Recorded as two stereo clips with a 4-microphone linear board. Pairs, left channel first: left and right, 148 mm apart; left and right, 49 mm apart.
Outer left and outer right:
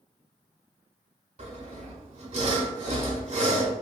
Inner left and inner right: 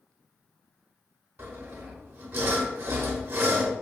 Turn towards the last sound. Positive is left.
turn(degrees=-45)  # may be behind; listen again after turning